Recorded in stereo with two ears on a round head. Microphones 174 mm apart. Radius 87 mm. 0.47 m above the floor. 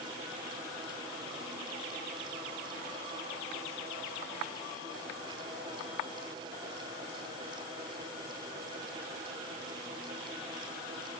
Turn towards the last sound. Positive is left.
No sound to turn to.